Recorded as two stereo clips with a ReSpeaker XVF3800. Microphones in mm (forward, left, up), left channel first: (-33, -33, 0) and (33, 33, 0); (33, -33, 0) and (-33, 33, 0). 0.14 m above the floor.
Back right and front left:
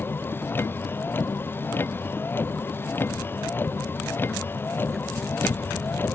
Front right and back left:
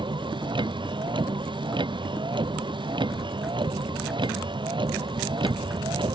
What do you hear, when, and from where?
0.0 s a vehicle: 160° left